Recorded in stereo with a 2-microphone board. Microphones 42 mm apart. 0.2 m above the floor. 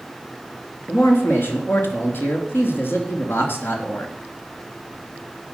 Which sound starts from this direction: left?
A man speaking, at 0.9 s.